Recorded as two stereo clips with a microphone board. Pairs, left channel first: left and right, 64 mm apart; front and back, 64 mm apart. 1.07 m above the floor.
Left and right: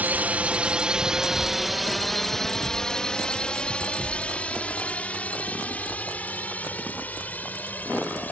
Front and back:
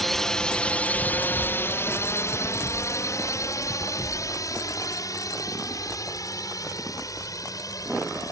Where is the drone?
85° right; by 8.3 s 25° left.